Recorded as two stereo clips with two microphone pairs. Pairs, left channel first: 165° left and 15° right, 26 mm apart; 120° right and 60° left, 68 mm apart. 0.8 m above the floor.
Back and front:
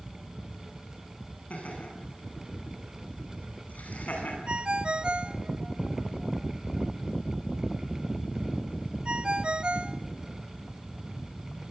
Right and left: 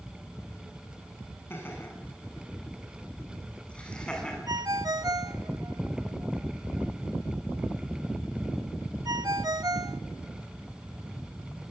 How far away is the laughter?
About 9 m.